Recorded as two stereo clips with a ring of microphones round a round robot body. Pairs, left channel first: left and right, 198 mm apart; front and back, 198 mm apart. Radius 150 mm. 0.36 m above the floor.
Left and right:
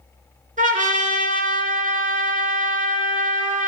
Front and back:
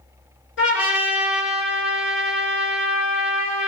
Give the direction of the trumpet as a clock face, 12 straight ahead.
1 o'clock.